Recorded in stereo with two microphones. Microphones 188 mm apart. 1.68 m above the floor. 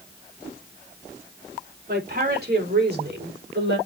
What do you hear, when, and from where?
1.9 s a woman speaking: 55° right (ahead or behind), 5.5 m; by 3.8 s 70° right (ahead or behind), 5 m